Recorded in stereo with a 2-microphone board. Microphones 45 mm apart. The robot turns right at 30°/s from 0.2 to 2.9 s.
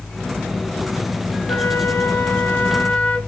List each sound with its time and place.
1.5 s a flute: 105° left, 1.2 m; by 3.2 s 150° left, 1.2 m